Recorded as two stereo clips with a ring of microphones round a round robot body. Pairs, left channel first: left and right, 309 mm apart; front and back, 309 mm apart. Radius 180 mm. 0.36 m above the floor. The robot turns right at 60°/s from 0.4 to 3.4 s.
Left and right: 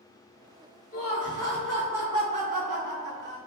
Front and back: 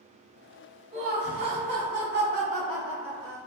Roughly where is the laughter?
Behind left.